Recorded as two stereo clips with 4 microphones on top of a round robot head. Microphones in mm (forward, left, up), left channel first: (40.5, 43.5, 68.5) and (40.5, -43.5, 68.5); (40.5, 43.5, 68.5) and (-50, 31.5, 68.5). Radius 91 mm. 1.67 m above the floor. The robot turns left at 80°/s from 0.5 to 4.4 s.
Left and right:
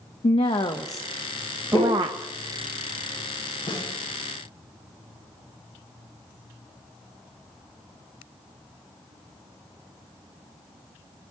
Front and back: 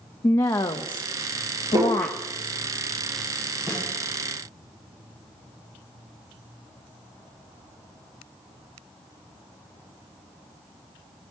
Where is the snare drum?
60° left, 8 m; by 3.9 s 45° left, 8 m.